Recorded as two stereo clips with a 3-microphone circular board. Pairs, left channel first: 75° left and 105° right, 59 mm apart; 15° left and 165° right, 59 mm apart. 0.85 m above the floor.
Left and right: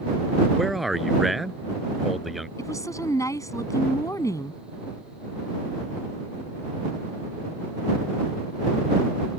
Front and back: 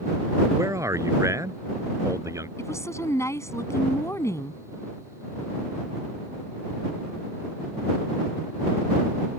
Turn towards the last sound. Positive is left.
turn(degrees=50)